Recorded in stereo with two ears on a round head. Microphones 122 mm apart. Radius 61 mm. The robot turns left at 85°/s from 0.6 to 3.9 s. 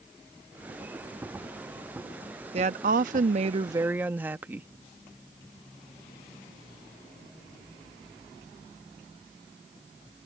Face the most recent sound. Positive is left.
turn(degrees=-165)